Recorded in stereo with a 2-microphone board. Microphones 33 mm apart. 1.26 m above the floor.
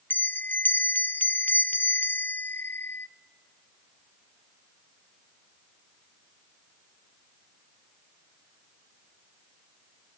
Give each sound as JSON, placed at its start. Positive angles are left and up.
{"t": 0.1, "sound": "a bell", "side_deg": 75, "distance_m": 0.5}